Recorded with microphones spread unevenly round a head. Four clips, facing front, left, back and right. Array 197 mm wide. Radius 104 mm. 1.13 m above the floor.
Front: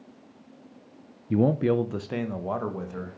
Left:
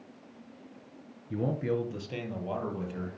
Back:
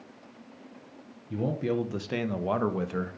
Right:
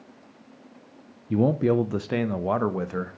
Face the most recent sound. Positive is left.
turn(degrees=-120)